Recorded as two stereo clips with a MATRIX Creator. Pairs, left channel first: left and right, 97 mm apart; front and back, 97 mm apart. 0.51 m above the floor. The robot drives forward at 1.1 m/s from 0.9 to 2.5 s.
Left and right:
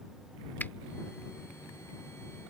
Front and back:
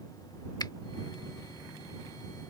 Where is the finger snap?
25° left.